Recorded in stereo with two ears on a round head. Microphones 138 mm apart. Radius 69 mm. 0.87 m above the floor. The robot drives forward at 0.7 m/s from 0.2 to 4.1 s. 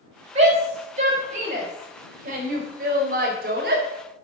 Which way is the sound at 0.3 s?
40° right (ahead or behind).